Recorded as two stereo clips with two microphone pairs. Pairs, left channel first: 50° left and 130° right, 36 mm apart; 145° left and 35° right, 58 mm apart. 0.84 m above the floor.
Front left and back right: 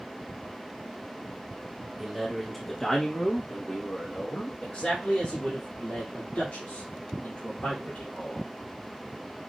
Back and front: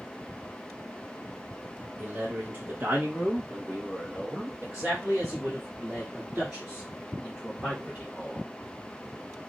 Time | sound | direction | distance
2.0 | a man speaking | 55° right | 1.1 m